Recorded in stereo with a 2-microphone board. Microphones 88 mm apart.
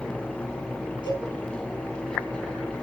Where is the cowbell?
70° left (ahead or behind), 6 m.